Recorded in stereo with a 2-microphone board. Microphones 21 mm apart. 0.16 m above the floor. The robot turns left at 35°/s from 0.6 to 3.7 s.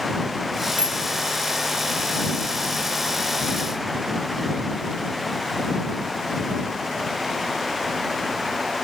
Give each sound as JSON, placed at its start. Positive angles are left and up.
{"t": 0.8, "sound": "a bicycle bell", "side_deg": -85}